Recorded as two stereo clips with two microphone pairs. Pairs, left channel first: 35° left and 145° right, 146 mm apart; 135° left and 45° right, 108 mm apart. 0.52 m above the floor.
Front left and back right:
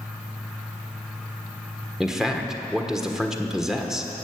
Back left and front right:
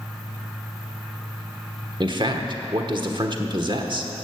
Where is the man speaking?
60° right, 1.3 m.